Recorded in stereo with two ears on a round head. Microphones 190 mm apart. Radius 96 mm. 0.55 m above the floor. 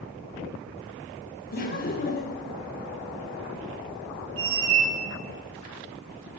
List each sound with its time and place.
1.5 s laughter: 45° left (ahead or behind), 0.8 m
4.4 s a squeak: 70° right (ahead or behind), 0.9 m